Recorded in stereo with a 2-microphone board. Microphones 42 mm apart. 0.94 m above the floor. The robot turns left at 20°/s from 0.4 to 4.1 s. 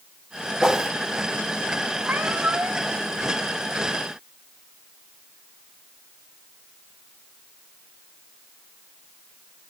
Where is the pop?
I don't hear a pop.